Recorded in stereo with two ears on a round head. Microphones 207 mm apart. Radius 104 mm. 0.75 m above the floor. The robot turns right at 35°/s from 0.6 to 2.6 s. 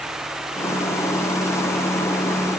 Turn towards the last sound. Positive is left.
No sound to turn to.